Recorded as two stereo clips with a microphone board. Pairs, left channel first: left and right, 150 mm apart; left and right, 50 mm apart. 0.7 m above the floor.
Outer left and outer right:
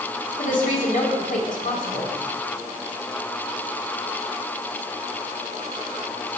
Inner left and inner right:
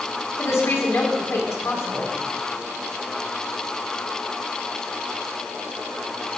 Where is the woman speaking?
60° left (ahead or behind), 2 m.